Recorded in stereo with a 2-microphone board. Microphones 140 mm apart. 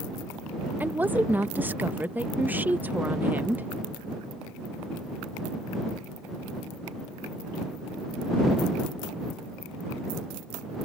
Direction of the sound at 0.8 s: 10° right (ahead or behind).